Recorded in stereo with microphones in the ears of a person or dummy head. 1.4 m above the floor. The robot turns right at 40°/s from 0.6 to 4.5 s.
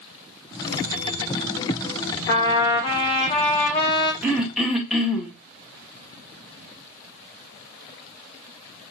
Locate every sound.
2.3 s a trumpet: 25° left (ahead or behind), 0.7 m; by 4.1 s 20° left (ahead or behind), 0.7 m
4.2 s throat clearing: 10° right (ahead or behind), 1.0 m; by 5.3 s centre (ahead or behind), 1.0 m